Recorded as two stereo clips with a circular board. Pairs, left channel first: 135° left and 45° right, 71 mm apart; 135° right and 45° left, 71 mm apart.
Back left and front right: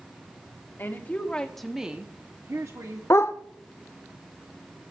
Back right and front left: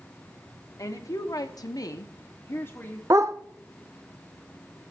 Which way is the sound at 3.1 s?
85° left.